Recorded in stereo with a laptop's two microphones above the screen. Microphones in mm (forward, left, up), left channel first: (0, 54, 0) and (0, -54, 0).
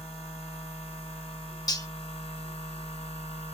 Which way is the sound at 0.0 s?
80° left.